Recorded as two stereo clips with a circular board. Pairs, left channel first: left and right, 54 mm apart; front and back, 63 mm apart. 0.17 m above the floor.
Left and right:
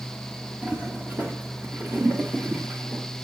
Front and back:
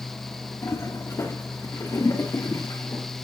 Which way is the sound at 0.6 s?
35° right.